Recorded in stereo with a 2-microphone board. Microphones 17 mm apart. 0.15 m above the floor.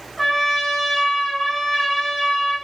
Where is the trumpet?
10° left (ahead or behind), 2.5 m.